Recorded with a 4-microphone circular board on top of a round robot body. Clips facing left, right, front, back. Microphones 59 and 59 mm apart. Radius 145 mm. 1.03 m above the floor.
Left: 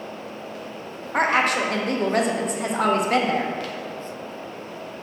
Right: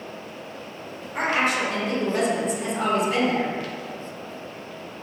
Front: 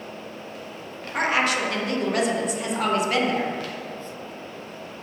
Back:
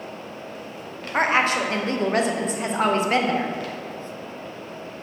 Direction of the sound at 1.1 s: 125° left.